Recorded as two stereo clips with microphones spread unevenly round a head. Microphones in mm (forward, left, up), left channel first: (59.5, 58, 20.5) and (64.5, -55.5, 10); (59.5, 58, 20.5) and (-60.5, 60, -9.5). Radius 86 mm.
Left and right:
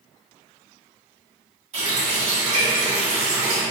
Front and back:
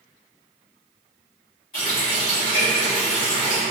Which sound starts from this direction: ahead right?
A running tap, at 1.7 s.